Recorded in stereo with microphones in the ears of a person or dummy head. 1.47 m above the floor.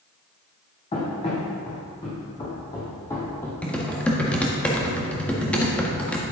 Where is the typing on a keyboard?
10° left (ahead or behind), 1.4 m.